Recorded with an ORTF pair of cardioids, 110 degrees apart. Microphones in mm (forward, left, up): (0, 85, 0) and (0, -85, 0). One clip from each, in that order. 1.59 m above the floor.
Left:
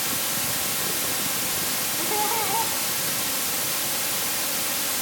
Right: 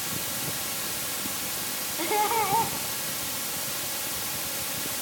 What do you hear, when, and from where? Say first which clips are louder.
0.0 s running water: left 5 dB; 35° left, 2.0 m
2.0 s laughter: right 2 dB; 15° right, 4.5 m